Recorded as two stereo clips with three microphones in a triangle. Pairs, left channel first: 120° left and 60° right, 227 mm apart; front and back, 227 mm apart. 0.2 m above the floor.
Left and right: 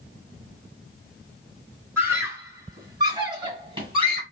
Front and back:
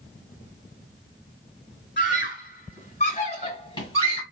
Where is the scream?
15° left, 2 m; by 4.2 s 55° right, 1.8 m.